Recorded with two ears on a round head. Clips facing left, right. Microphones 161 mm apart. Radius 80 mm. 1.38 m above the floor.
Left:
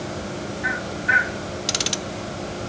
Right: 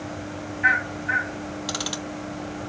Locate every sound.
1.7 s ticking: 25° left (ahead or behind), 0.5 m